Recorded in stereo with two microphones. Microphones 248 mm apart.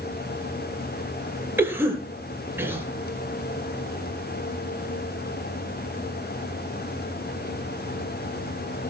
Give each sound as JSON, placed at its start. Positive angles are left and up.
{"t": 1.6, "sound": "a cough", "side_deg": -10, "distance_m": 4.0}